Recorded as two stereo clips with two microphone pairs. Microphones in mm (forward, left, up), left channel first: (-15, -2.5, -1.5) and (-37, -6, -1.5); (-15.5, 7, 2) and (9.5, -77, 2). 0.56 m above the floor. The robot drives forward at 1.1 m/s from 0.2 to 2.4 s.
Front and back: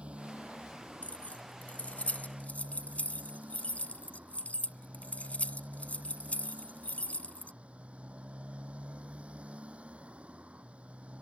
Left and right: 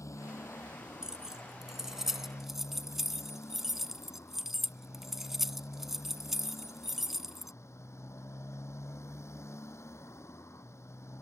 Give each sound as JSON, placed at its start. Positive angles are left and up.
{"t": 0.0, "sound": "a motorcycle", "azimuth_deg": 160}
{"t": 1.0, "sound": "keys jangling", "azimuth_deg": 10}